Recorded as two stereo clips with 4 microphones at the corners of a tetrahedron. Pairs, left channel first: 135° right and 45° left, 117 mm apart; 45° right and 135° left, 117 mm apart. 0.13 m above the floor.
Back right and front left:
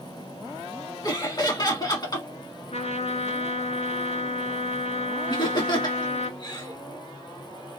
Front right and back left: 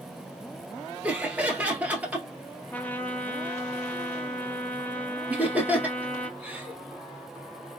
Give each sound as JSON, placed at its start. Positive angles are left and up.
{"t": 1.0, "sound": "laughter", "azimuth_deg": -155, "distance_m": 1.4}
{"t": 2.7, "sound": "a trumpet", "azimuth_deg": -120, "distance_m": 0.5}
{"t": 5.3, "sound": "laughter", "azimuth_deg": -155, "distance_m": 1.5}